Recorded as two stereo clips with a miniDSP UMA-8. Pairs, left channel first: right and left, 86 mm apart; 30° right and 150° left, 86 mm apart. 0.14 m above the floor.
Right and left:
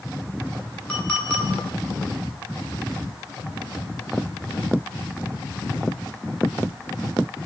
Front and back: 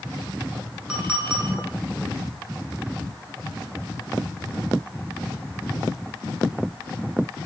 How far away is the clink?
About 1.0 m.